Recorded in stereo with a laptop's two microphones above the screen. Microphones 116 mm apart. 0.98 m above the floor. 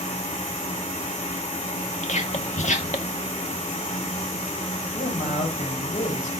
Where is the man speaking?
85° left, 5 m.